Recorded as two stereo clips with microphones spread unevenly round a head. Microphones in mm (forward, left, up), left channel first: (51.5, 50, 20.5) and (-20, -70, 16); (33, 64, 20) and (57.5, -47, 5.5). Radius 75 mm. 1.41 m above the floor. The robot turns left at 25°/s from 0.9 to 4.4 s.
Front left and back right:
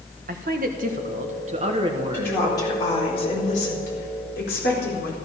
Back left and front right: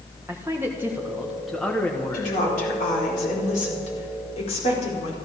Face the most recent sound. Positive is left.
turn(degrees=80)